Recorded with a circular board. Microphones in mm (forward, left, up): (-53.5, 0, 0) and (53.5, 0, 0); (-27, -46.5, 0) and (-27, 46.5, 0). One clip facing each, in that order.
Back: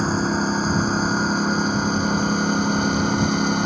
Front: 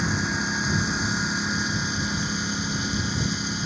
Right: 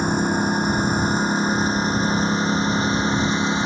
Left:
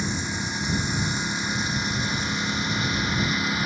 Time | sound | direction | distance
0.0 | a lawn mower | 130° right | ?